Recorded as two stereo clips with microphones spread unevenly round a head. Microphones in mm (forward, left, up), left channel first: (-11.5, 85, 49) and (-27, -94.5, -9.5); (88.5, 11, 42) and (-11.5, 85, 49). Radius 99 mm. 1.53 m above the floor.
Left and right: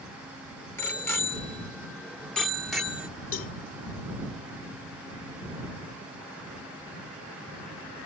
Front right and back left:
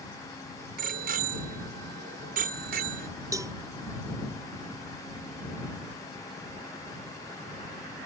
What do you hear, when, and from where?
0.8 s a bicycle bell: 160° left; by 3.1 s 175° left
3.3 s a cowbell: 80° left